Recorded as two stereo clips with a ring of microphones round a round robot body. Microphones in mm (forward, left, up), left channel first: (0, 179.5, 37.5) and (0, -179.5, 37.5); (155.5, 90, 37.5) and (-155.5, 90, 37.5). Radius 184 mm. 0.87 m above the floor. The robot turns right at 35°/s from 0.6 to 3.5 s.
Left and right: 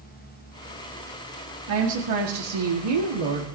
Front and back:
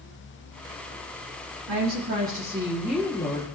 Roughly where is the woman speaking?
Behind right.